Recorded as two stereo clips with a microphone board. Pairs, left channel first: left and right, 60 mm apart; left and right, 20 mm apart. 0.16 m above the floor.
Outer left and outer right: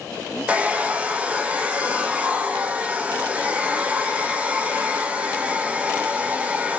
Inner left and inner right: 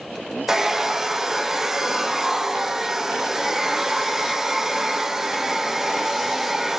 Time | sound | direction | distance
0.5 | a hair dryer | 25° right (ahead or behind) | 1.0 m